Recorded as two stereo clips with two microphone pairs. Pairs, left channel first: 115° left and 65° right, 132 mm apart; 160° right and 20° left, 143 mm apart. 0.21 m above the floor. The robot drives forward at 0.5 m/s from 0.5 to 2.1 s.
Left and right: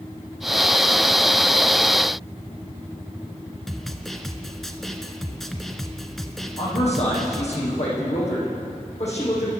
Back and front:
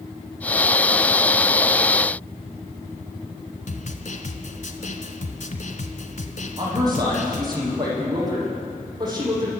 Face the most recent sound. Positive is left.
turn(degrees=85)